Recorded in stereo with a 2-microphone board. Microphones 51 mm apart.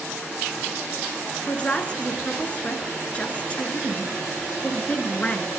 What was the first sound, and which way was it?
A woman speaking, 25° left (ahead or behind).